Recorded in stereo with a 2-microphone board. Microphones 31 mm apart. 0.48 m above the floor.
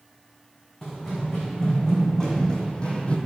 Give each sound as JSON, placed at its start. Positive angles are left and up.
{"t": 0.8, "sound": "running footsteps", "side_deg": 15, "distance_m": 3.0}